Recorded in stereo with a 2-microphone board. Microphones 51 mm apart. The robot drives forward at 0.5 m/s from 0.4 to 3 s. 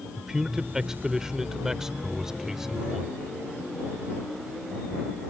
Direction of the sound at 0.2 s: 10° right (ahead or behind).